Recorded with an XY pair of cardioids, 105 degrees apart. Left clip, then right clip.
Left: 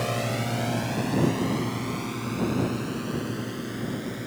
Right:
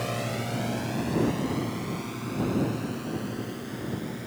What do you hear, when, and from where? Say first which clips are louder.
0.0 s a drone: left 3 dB; 20° left; by 4.3 s 25° left